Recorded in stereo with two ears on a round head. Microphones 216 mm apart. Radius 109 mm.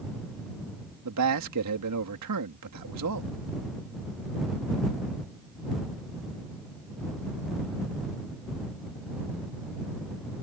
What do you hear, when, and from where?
1.1 s a man speaking: 85° right